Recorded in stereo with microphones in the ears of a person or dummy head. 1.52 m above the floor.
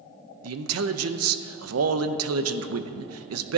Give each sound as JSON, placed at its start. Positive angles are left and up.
{"t": 0.4, "sound": "a man speaking", "side_deg": -75, "distance_m": 0.7}